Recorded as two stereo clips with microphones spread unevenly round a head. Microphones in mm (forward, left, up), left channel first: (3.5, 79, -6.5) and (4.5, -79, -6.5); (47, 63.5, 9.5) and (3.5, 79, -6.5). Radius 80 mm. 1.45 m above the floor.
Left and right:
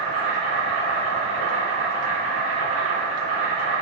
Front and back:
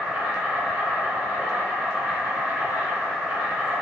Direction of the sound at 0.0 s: 125° right.